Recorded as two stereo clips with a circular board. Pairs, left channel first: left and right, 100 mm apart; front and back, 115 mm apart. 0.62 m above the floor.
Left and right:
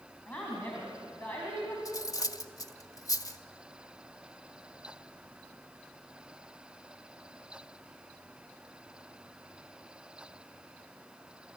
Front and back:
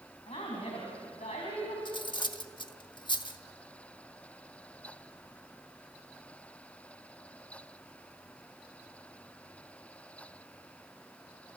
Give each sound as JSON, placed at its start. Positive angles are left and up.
{"t": 0.3, "sound": "a woman speaking", "azimuth_deg": 20, "distance_m": 4.5}
{"t": 1.9, "sound": "cutlery clinking", "azimuth_deg": 40, "distance_m": 0.9}